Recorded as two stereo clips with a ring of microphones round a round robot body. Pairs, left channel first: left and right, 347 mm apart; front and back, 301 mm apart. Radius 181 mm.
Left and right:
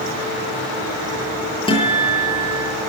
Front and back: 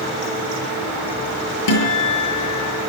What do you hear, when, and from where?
1.7 s a guitar: 15° left, 8.5 m